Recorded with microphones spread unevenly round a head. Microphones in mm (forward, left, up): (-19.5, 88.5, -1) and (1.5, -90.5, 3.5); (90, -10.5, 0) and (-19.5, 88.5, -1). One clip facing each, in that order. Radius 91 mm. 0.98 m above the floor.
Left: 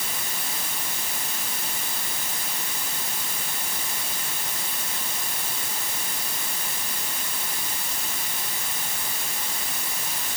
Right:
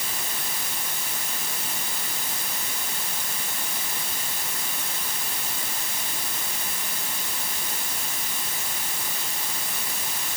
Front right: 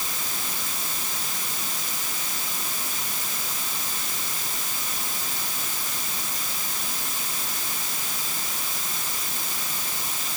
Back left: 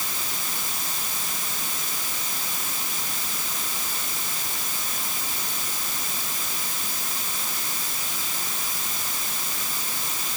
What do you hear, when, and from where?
Only background noise.